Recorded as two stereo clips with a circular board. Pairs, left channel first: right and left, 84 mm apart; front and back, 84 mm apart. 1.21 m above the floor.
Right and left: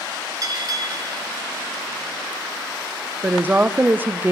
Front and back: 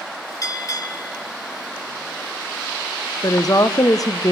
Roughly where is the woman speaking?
Ahead left.